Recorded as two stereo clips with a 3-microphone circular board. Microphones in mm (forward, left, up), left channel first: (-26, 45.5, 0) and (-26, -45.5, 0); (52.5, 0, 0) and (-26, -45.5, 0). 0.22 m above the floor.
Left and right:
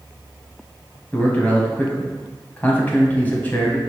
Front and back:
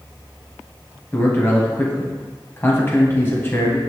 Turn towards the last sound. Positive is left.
turn(degrees=45)